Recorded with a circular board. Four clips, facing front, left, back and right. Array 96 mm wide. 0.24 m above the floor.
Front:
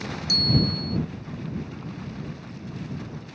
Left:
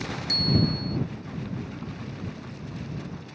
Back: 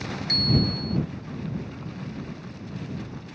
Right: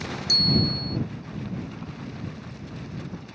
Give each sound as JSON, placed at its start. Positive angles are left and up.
{"t": 0.3, "sound": "a bicycle bell", "azimuth_deg": 160}